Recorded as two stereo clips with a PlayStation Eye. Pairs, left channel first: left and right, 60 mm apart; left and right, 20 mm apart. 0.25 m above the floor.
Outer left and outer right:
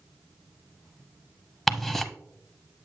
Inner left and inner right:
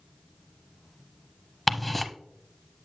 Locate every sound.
1.7 s ticking: centre (ahead or behind), 0.6 m